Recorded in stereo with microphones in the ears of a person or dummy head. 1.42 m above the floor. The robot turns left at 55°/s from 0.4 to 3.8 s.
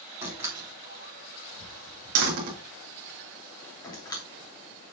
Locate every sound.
0.2 s a door slam: 10° right (ahead or behind), 2.5 m; by 4.2 s 20° left (ahead or behind), 2.5 m